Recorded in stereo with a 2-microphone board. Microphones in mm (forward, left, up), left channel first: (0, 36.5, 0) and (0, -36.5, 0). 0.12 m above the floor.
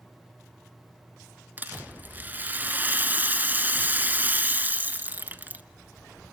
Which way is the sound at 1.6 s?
25° right (ahead or behind).